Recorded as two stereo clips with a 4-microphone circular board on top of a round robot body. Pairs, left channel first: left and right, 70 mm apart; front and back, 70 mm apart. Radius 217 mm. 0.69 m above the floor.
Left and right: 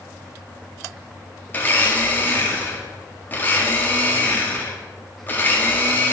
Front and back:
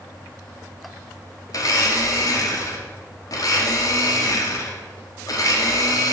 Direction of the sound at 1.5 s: 25° left.